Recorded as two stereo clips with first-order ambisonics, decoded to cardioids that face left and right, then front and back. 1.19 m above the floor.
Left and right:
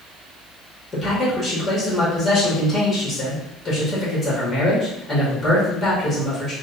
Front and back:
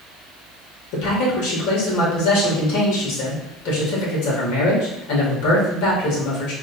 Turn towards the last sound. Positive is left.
turn(degrees=15)